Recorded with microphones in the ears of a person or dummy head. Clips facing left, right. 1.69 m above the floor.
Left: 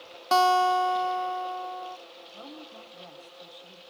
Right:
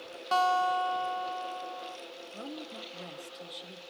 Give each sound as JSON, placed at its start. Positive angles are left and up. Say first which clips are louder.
{"t": 0.3, "sound": "a guitar", "louder": "left 6 dB", "side_deg": 60, "distance_m": 0.5}
{"t": 2.3, "sound": "a woman speaking", "louder": "right 3 dB", "side_deg": -30, "distance_m": 1.0}